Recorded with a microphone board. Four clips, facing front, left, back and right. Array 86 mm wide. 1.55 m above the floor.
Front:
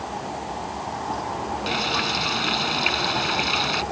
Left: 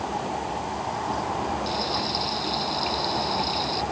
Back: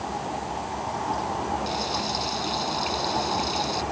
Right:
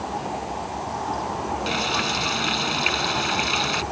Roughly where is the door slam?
No door slam in this recording.